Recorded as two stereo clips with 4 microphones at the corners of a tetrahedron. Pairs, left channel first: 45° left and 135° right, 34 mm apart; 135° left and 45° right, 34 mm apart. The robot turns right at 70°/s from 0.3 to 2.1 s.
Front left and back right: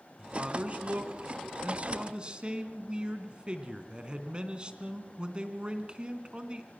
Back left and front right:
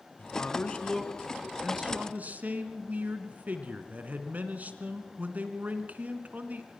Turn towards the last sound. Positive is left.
turn(degrees=-75)